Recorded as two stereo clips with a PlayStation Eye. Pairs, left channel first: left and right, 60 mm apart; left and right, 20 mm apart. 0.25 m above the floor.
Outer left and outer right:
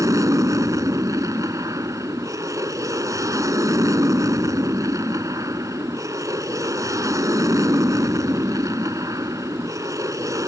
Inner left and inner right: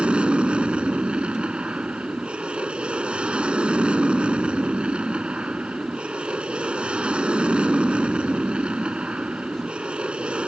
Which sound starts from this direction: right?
An aircraft, at 0.0 s.